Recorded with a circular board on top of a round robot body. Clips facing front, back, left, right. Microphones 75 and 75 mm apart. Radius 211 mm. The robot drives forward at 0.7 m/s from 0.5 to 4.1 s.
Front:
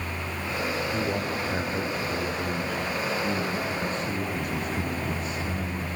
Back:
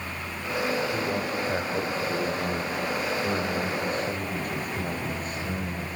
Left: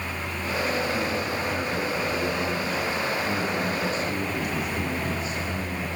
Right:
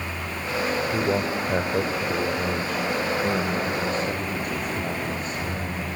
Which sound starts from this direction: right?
A man speaking, at 0.9 s.